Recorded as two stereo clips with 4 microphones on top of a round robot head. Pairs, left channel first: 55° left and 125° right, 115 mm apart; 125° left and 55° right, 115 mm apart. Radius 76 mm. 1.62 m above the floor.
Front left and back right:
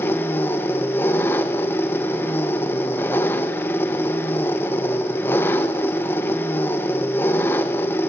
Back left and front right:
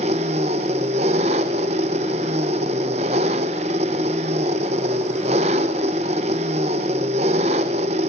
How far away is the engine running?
About 1.0 m.